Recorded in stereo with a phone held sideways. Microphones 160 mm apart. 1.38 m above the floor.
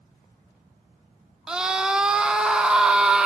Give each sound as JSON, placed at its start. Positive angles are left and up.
{"t": 1.5, "sound": "a scream", "side_deg": -5, "distance_m": 0.8}